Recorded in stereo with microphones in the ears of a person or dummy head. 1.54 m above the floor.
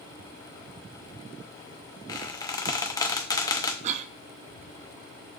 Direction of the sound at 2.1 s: 15° left (ahead or behind).